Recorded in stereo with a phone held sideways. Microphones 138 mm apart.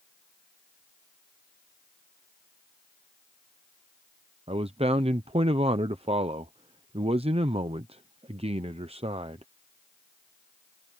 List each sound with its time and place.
4.5 s a man speaking: 45° right (ahead or behind)